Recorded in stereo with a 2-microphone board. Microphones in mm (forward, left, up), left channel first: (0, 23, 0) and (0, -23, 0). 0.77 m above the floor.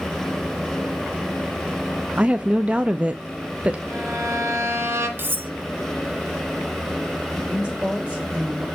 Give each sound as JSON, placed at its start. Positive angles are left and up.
{"t": 2.2, "sound": "a woman speaking", "side_deg": -25, "distance_m": 0.6}
{"t": 3.9, "sound": "a violin", "side_deg": -85, "distance_m": 3.0}
{"t": 5.2, "sound": "cutlery clinking", "side_deg": -50, "distance_m": 0.6}
{"t": 7.3, "sound": "a woman speaking", "side_deg": -25, "distance_m": 4.5}